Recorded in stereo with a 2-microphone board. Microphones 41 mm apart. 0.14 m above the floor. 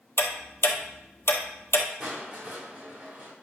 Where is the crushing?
40° right (ahead or behind), 4 m.